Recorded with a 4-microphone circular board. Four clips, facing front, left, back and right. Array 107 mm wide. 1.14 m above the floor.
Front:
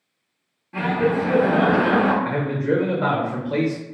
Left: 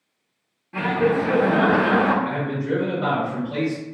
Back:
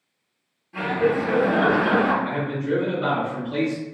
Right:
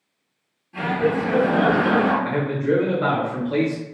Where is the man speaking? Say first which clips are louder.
Right 3 dB, front 3 dB; 25° right, 1.0 m.